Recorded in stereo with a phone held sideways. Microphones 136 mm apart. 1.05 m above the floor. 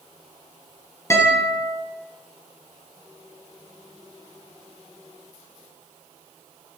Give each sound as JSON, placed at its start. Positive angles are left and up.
{"t": 1.1, "sound": "a guitar", "side_deg": 20, "distance_m": 1.9}